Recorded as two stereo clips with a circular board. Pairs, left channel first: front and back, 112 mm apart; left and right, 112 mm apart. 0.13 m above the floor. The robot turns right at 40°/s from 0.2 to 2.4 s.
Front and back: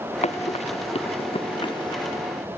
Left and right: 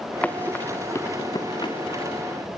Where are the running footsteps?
15° left, 1.4 m; by 2.2 s 60° left, 2.5 m.